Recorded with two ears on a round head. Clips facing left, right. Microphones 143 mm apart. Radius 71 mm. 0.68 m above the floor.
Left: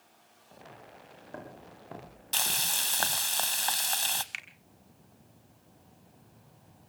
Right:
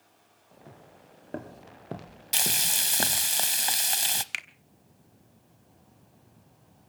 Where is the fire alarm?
No fire alarm in this recording.